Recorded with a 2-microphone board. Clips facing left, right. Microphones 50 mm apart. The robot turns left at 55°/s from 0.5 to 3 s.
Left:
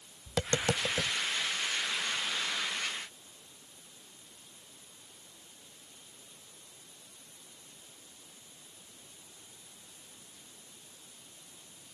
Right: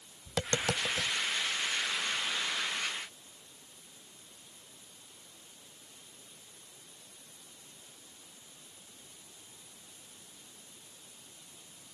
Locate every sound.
0.3 s tapping: 5° left (ahead or behind); by 1.1 s 35° left (ahead or behind)